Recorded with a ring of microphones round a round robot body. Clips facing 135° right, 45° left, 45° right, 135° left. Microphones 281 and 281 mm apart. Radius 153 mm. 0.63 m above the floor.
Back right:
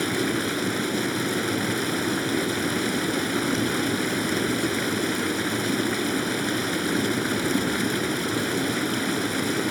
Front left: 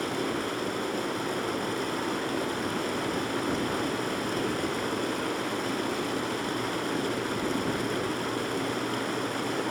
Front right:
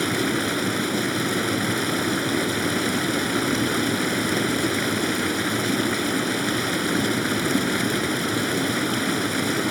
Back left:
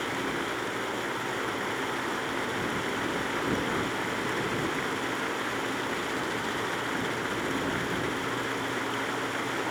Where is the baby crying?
I don't hear a baby crying.